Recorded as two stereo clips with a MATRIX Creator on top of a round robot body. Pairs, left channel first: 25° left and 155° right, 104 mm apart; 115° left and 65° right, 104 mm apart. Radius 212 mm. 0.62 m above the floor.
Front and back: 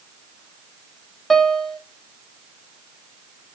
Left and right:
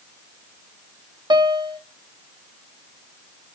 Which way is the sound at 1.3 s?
65° right.